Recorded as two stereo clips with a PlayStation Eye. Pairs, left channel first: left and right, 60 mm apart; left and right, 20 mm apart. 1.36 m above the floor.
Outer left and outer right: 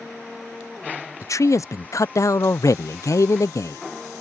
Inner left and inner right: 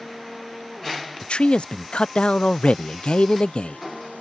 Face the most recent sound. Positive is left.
turn(degrees=60)  # may be behind; listen again after turning